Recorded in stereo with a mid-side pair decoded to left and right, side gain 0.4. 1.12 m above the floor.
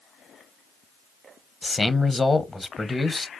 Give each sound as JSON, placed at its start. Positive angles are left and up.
{"t": 1.6, "sound": "a man speaking", "azimuth_deg": 25, "distance_m": 0.6}